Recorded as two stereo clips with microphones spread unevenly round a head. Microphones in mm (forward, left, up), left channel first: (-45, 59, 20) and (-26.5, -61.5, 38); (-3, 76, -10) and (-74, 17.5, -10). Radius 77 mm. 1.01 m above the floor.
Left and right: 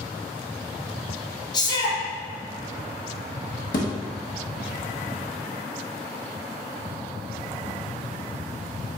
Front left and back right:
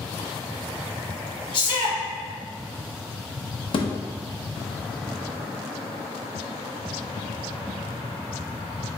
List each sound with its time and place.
1.5 s a shout: 60° left, 1.2 m
3.7 s a thud: 60° left, 0.7 m